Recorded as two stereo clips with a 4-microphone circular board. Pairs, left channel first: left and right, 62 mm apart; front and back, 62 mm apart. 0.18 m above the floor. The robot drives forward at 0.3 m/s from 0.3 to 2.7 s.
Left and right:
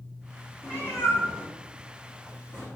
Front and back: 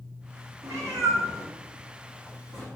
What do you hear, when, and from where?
0.6 s a cat meowing: 145° left, 2.0 m; by 2.7 s 150° left, 2.5 m